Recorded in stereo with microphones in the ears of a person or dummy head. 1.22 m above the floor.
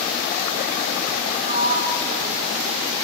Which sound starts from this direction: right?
A sliding door, at 1.5 s.